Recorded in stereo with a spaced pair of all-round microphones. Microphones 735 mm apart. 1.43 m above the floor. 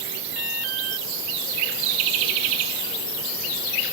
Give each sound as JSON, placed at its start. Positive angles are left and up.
{"t": 0.3, "sound": "an alarm", "side_deg": 80}